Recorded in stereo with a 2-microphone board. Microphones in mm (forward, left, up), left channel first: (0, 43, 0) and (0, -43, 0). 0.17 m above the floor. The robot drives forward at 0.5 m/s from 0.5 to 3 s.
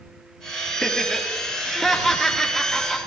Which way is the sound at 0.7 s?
5° left (ahead or behind).